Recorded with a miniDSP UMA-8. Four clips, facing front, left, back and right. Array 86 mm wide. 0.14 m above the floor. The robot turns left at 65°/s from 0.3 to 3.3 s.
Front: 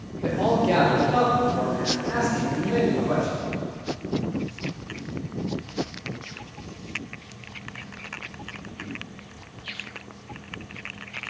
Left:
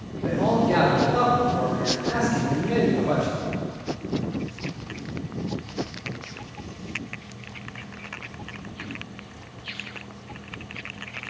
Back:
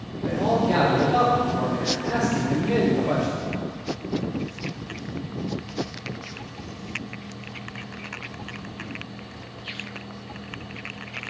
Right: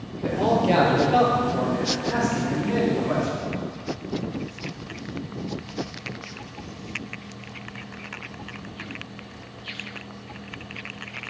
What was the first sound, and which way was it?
A man speaking, 35° right.